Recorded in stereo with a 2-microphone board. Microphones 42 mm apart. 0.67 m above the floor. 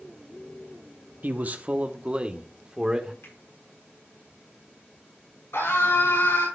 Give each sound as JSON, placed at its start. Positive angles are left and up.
{"t": 1.2, "sound": "a man speaking", "side_deg": -45, "distance_m": 0.8}
{"t": 3.2, "sound": "a finger snap", "side_deg": 80, "distance_m": 4.0}
{"t": 5.5, "sound": "a scream", "side_deg": 85, "distance_m": 6.5}